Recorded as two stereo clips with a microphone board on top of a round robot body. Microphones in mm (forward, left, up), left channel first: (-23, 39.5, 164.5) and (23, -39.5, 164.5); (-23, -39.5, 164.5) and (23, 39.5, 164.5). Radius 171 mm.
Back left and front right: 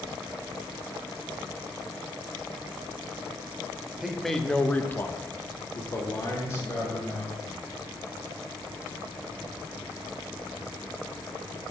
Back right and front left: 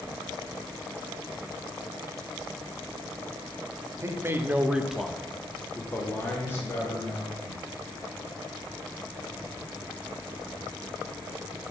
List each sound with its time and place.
4.0 s a man speaking: 25° left, 1.1 m; by 7.7 s straight behind, 3 m